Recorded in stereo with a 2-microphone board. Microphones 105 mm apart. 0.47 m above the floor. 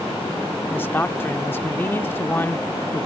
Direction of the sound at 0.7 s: 20° left (ahead or behind).